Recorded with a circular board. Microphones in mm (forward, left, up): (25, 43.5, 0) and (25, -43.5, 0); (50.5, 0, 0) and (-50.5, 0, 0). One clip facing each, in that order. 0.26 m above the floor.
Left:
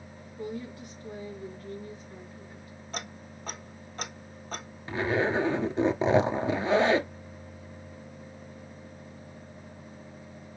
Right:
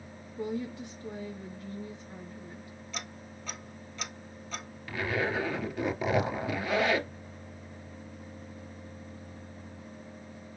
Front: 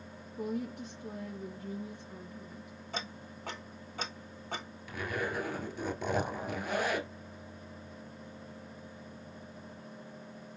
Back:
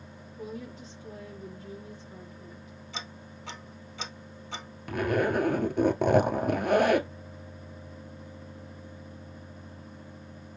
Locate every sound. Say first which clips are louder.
0.4 s a woman speaking: right 3 dB, front 4 dB; 25° right, 4 m
2.9 s ticking: left 4 dB, front 2 dB; 45° left, 1.1 m
4.9 s a zipper: left 4 dB, back 10 dB; 150° left, 0.9 m